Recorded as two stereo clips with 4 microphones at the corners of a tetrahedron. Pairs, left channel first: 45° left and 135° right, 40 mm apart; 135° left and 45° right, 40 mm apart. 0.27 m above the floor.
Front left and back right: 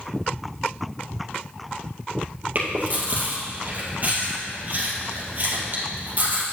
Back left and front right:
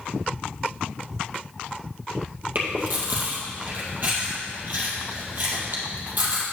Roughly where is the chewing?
Right.